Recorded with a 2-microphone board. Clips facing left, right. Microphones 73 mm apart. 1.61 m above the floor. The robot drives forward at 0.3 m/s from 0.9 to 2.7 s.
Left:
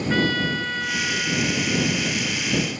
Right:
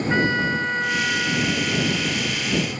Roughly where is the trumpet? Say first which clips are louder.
Right 1 dB; right.